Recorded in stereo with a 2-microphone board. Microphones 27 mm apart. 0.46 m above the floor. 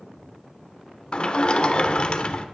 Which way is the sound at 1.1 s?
45° left (ahead or behind).